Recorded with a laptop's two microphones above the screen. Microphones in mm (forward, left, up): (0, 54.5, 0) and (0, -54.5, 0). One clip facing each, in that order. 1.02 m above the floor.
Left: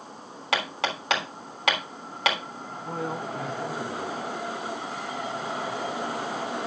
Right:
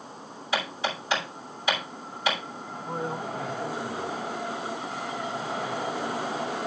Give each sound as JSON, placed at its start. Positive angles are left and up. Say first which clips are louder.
{"t": 0.5, "sound": "hammering", "louder": "left 1 dB", "side_deg": 70, "distance_m": 3.0}
{"t": 2.7, "sound": "a man speaking", "louder": "even", "side_deg": 70, "distance_m": 2.5}